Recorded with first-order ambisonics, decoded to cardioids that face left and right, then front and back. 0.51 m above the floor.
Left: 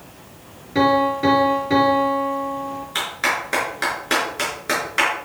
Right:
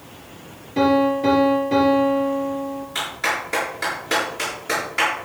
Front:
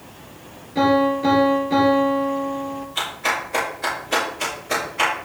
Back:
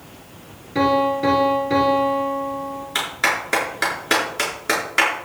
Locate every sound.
0.8 s a piano: 120° left, 6 m
3.0 s a clap: 155° left, 6.5 m